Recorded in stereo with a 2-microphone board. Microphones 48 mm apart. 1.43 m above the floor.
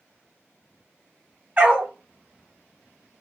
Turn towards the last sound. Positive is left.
turn(degrees=-35)  # may be behind; listen again after turning